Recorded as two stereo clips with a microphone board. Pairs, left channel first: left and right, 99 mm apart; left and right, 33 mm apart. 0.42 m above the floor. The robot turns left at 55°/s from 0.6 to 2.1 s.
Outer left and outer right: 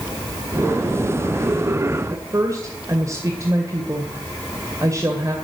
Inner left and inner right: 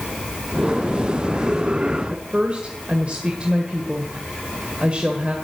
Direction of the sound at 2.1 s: 35° right (ahead or behind).